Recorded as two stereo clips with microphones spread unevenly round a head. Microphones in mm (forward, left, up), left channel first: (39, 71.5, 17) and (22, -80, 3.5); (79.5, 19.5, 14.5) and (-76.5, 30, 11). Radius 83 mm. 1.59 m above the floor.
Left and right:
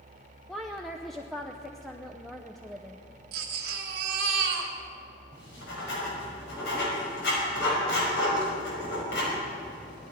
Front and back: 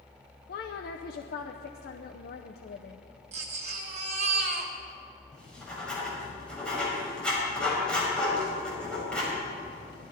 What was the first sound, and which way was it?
A woman speaking, straight ahead.